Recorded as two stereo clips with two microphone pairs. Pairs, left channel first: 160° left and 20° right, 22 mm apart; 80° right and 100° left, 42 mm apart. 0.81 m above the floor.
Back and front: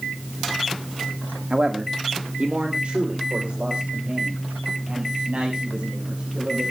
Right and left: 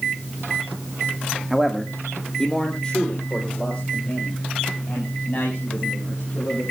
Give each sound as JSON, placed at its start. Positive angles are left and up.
{"t": 1.5, "sound": "a man speaking", "azimuth_deg": 20, "distance_m": 1.4}